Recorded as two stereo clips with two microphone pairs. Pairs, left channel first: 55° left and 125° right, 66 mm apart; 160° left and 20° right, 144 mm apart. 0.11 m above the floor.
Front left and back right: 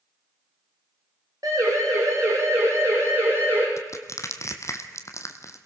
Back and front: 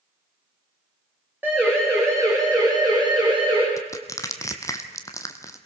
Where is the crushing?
90° left, 1.5 m.